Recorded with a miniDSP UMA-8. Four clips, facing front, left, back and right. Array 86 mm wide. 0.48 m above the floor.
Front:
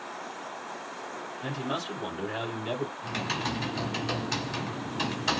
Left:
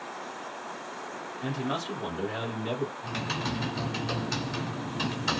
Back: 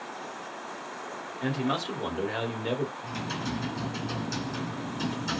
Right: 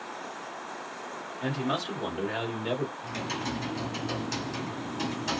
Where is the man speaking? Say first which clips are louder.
Right 2 dB, back 4 dB; 145° right, 1.7 m.